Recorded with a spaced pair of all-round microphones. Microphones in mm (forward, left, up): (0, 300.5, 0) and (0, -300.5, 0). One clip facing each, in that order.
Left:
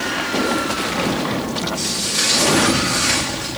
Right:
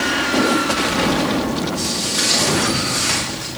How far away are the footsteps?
About 5.5 m.